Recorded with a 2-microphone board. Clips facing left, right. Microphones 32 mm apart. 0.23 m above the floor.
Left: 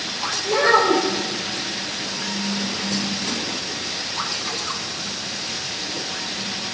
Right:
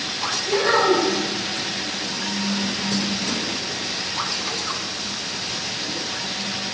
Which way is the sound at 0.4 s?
75° left (ahead or behind).